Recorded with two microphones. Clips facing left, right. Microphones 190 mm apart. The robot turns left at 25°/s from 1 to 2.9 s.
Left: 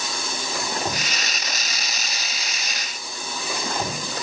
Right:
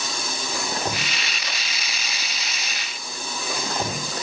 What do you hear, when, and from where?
Only background noise.